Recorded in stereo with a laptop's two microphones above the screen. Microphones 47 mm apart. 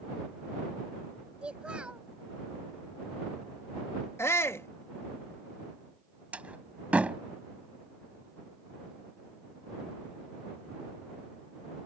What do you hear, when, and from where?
1.4 s a child speaking: 25° right (ahead or behind)
4.2 s a shout: 75° left (ahead or behind)
6.3 s a door slam: 30° right (ahead or behind)